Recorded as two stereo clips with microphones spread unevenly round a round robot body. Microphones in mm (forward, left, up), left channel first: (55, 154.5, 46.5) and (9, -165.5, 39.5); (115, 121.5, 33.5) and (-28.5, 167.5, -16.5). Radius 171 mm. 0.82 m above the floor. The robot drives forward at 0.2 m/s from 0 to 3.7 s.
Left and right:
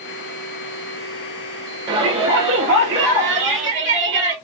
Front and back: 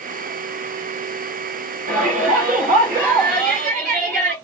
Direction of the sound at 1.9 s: 170° right.